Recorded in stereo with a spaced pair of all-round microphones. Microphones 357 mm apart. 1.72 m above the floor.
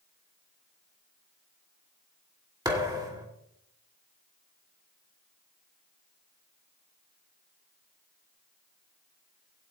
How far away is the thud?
About 2.5 m.